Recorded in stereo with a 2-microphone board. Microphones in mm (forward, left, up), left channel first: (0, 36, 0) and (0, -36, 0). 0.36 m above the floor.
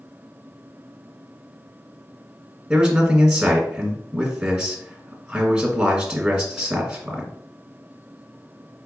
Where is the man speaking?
5° right (ahead or behind), 1.4 m.